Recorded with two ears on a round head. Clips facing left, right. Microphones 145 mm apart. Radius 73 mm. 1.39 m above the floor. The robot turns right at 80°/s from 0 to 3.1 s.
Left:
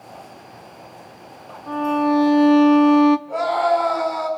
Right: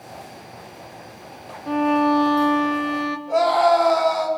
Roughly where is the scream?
Right.